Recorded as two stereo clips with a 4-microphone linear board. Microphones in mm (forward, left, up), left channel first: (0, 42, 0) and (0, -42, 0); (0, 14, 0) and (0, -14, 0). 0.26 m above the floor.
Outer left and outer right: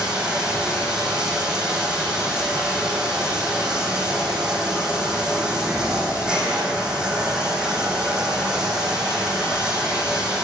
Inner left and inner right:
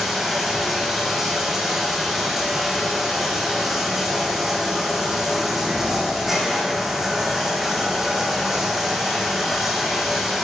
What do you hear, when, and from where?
0.0 s running water: 10° right (ahead or behind), 2.5 m